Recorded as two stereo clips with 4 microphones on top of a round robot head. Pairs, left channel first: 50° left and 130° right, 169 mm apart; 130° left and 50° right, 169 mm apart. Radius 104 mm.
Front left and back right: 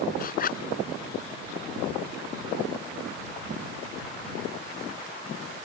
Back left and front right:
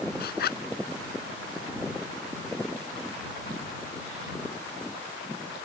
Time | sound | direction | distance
0.2 | a zipper | 95° left | ?